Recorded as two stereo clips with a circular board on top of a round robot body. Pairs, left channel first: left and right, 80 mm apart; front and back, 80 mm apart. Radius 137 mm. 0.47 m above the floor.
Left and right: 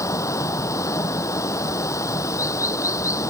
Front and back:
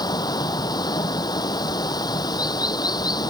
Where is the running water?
40° left.